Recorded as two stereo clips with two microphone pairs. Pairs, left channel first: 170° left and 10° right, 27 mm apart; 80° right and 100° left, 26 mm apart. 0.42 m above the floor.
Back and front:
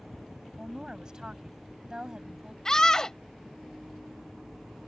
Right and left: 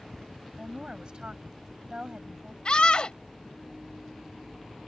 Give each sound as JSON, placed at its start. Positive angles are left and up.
{"t": 0.6, "sound": "a woman speaking", "azimuth_deg": 50}
{"t": 2.6, "sound": "a scream", "azimuth_deg": -130}